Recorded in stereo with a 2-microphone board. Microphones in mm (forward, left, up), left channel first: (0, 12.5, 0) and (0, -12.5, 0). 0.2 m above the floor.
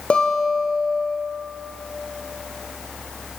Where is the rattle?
I don't hear a rattle.